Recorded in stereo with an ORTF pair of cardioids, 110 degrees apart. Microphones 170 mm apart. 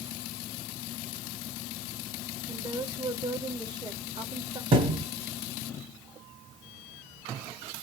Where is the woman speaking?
25° right, 1.9 m.